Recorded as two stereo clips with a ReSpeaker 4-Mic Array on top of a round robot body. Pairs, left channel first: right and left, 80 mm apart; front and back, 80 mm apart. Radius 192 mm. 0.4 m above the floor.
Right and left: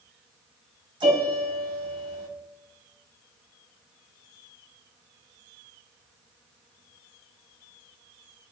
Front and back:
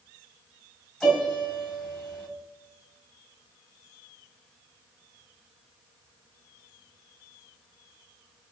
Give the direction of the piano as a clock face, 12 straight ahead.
9 o'clock.